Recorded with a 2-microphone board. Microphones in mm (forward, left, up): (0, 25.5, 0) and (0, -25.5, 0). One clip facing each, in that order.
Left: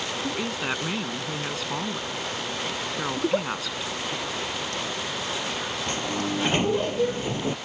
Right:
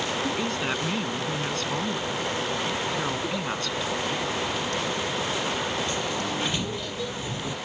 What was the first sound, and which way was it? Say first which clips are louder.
A woman speaking: right 1 dB; 5° left (ahead or behind).